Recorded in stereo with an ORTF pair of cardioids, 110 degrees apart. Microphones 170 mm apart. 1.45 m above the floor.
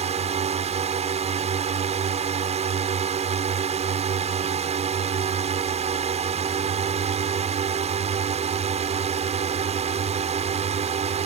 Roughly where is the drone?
Ahead right.